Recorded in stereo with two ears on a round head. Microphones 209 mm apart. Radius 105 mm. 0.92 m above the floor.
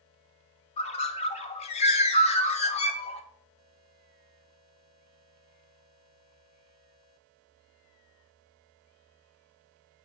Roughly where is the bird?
Left.